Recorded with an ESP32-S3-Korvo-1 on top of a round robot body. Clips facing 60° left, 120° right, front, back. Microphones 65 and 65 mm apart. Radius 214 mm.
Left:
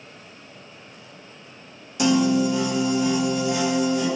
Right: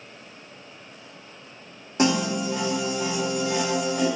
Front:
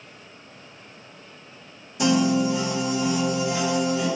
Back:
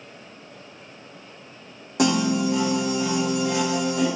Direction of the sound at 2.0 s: 170° right.